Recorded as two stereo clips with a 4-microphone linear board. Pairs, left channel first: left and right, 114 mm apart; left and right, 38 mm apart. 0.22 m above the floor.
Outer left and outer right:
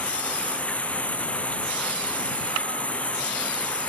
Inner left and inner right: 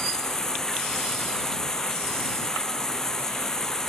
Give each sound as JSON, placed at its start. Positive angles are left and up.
{"t": 0.0, "sound": "running water", "side_deg": 10}